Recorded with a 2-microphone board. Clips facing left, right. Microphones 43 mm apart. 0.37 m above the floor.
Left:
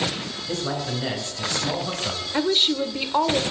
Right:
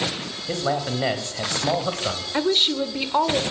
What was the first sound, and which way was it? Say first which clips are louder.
A man speaking: right 4 dB; 40° right (ahead or behind).